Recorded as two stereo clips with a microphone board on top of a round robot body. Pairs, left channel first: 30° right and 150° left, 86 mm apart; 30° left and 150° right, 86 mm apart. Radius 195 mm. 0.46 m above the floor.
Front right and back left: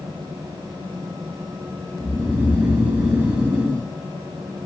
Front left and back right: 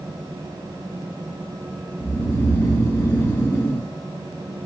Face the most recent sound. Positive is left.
turn(degrees=80)